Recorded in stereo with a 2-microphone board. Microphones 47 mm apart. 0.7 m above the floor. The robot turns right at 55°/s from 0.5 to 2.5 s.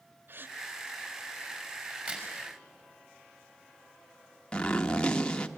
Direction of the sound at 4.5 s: 20° left (ahead or behind).